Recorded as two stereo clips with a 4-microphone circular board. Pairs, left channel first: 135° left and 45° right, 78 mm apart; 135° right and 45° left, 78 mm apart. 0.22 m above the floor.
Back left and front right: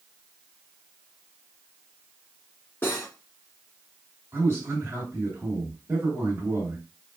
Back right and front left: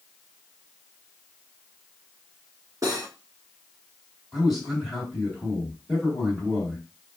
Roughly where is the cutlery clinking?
Left.